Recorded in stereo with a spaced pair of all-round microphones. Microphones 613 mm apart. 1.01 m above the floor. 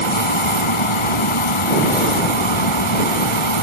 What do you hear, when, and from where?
0.0 s a fan: 50° left (ahead or behind)